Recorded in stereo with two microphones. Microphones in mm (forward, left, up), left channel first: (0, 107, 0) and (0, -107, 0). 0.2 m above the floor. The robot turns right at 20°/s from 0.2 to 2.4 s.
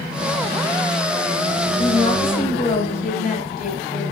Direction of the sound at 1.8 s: 30° left (ahead or behind).